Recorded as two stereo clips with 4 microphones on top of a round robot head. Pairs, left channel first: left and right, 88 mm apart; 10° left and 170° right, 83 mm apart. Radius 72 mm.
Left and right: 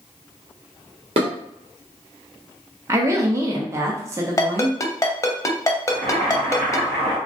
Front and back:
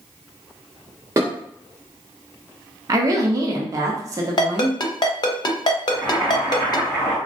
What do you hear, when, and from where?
1.2 s dishes clattering: 105° right, 1.0 m
2.9 s a woman speaking: 140° right, 0.5 m
4.4 s a ringtone: 40° left, 0.8 m
5.9 s boiling: 70° right, 1.8 m